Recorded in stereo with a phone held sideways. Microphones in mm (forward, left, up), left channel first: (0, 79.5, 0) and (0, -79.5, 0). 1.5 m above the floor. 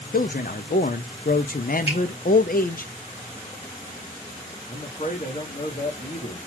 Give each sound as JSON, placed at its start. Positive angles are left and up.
{"t": 0.1, "sound": "a man speaking", "side_deg": 65, "distance_m": 0.6}
{"t": 1.9, "sound": "a finger snap", "side_deg": 40, "distance_m": 1.8}
{"t": 4.7, "sound": "a man speaking", "side_deg": 45, "distance_m": 1.3}